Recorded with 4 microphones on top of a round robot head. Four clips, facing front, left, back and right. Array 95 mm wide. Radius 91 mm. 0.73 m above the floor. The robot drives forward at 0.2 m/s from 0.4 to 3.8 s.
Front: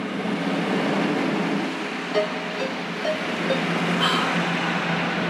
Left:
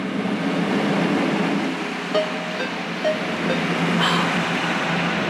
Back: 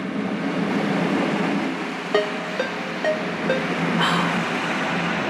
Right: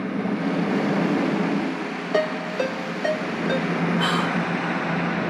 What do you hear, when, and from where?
2.1 s a ringtone: 175° right, 1.1 m
4.0 s whispering: 150° left, 1.9 m